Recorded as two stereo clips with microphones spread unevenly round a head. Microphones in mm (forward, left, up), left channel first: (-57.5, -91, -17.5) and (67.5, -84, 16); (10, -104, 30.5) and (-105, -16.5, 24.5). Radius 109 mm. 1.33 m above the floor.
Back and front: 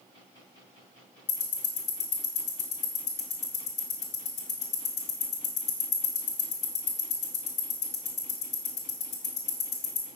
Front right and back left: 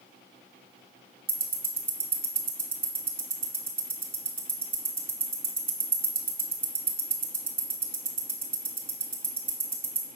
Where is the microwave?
No microwave in this recording.